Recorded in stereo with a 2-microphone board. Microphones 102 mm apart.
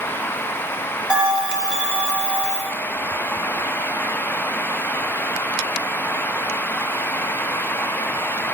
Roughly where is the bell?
Centre.